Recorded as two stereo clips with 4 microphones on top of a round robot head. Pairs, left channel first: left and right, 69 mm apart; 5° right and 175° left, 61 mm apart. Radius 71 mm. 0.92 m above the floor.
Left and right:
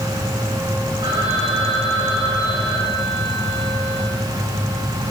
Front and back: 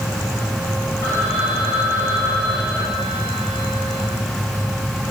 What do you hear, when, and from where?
1.0 s a phone ringing: 55° right, 4.5 m